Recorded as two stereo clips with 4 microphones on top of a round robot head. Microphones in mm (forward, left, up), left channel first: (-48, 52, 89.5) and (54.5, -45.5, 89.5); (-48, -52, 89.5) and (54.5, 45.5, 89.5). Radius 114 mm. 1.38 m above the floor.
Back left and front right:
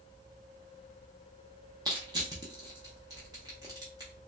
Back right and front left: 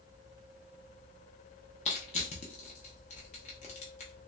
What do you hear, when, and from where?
1.9 s crushing: 105° right, 0.5 m